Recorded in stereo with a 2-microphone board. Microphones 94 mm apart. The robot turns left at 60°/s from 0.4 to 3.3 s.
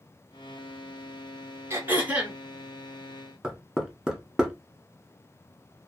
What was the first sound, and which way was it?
Throat clearing, 120° right.